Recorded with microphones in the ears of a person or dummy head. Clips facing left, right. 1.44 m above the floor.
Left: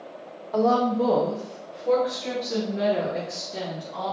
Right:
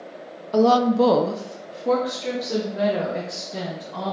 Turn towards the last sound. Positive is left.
turn(degrees=-25)  # may be behind; listen again after turning